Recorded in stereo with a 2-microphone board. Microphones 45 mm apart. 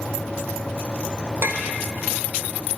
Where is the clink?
65° right (ahead or behind), 1.0 m.